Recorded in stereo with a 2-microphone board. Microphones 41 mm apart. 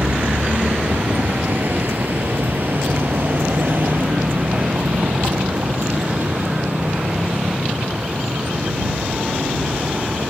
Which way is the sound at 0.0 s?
60° right (ahead or behind).